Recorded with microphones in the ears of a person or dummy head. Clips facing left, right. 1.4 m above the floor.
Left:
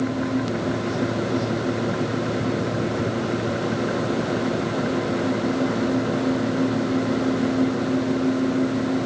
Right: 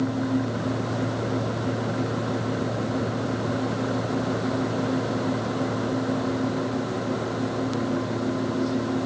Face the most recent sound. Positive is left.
No sound to turn to.